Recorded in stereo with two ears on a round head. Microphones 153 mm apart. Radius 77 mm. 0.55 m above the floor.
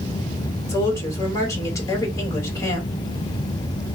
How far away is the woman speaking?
About 1.7 m.